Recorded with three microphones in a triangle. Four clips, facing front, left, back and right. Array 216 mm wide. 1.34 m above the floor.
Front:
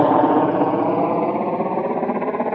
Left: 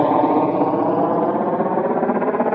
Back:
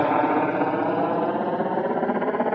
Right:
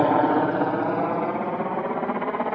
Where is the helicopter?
35° left; by 2.5 s 85° left.